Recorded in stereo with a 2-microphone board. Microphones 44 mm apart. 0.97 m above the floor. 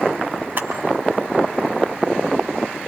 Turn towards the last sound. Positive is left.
turn(degrees=-50)  # may be behind; listen again after turning